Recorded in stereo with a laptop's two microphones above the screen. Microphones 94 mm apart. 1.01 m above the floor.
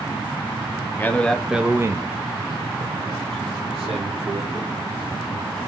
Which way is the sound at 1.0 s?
20° left (ahead or behind).